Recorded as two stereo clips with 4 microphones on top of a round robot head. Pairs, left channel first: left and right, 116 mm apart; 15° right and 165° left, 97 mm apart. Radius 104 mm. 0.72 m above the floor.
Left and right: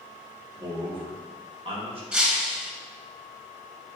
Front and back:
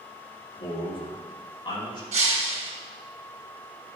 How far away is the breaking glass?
About 1.9 m.